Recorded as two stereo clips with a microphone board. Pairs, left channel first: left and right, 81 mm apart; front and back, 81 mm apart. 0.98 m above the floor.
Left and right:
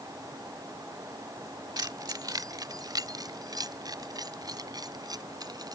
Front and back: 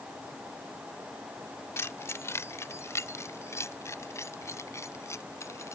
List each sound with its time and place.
1.8 s keys jangling: 55° right